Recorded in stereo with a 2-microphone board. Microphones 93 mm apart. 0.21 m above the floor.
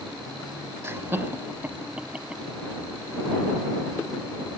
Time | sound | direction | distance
0.8 | laughter | 25° right (ahead or behind) | ?